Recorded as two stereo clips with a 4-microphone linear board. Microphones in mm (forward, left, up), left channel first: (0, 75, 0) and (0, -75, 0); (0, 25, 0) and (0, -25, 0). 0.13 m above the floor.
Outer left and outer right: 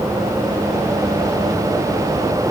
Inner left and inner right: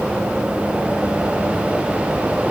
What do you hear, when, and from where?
Only background noise.